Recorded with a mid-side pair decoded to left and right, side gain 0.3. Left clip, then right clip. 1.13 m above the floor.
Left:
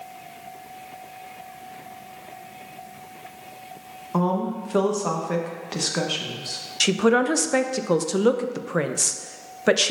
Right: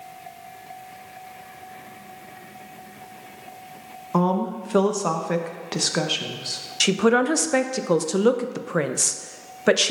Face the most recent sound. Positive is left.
turn(degrees=-15)